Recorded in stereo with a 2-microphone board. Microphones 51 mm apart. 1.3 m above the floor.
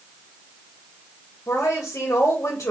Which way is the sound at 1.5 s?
50° left (ahead or behind).